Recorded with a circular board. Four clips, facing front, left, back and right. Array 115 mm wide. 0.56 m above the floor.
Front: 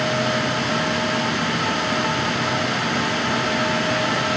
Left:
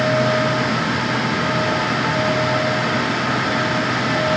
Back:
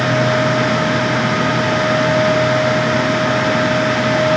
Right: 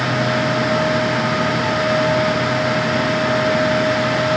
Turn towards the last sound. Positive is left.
No sound to turn to.